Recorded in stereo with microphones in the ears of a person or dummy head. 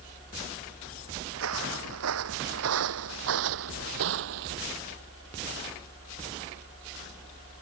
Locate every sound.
1.3 s footsteps: 70° right (ahead or behind); by 4.6 s 60° right (ahead or behind)